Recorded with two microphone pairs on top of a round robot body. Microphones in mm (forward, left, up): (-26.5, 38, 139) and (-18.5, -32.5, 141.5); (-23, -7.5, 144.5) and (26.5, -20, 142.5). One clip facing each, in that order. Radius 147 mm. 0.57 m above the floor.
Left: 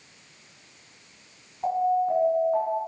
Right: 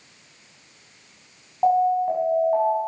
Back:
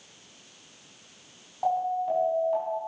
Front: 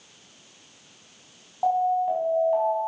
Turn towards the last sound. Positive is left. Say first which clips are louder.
# right 4 dB, front 4 dB
turn(degrees=-95)